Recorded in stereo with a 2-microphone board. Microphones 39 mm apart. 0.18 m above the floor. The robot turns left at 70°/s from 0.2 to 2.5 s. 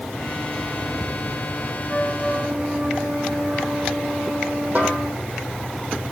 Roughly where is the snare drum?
Right.